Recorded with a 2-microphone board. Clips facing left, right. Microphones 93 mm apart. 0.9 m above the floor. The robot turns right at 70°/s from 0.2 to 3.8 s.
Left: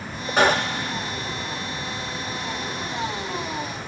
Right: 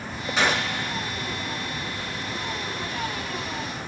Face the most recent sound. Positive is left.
turn(degrees=10)